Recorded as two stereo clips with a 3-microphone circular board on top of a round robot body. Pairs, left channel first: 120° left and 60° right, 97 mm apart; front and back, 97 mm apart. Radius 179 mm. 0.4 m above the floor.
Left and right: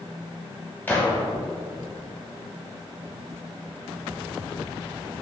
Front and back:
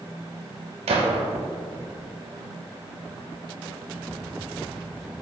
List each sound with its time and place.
0.9 s a gunshot: 165° right, 0.8 m